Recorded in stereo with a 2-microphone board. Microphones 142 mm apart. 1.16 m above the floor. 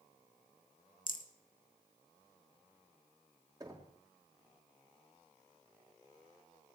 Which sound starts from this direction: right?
Knocking, at 3.6 s.